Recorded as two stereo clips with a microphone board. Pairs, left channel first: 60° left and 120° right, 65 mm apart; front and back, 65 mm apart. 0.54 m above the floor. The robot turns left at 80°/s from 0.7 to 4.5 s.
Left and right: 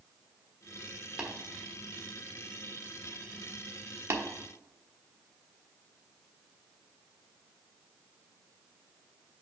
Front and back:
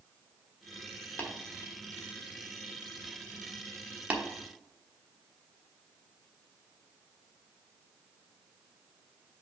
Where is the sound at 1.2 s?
45° right, 1.3 m; by 1.3 s 55° right, 1.3 m.